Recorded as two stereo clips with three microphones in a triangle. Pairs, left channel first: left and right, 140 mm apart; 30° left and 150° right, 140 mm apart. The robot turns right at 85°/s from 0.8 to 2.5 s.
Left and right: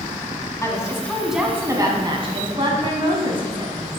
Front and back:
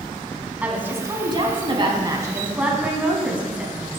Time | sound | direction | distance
0.6 | a woman speaking | 140° left | 1.3 m